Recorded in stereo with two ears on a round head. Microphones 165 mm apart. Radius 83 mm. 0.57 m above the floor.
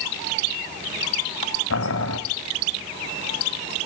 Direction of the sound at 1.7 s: 85° left.